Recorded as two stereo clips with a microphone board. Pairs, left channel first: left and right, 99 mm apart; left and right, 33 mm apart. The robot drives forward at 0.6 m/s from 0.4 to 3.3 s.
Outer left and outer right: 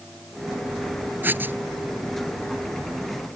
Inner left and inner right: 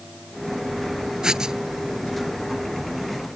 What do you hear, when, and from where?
1.2 s writing: 20° right (ahead or behind)